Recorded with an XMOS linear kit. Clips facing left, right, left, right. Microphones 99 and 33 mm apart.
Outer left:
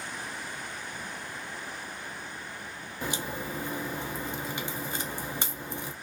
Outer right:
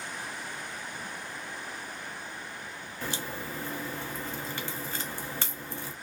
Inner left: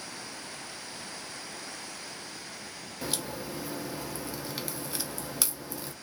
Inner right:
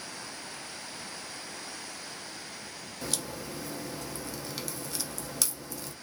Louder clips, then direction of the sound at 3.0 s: Outer left 2 dB, inner left 2 dB; 15° left (ahead or behind).